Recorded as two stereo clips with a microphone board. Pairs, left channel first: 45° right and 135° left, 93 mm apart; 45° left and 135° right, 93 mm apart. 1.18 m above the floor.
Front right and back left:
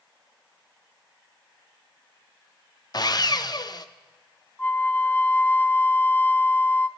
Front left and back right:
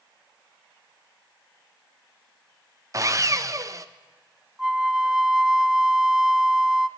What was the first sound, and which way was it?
Sawing, 85° right.